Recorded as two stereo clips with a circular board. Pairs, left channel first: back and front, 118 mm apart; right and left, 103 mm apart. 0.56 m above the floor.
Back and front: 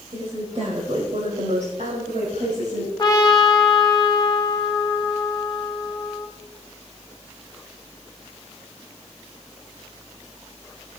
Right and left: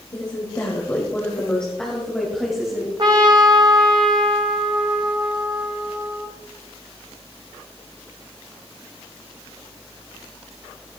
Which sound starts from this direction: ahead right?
A woman speaking, at 0.1 s.